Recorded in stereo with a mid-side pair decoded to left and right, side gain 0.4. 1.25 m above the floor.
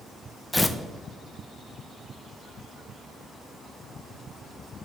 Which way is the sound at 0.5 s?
15° left.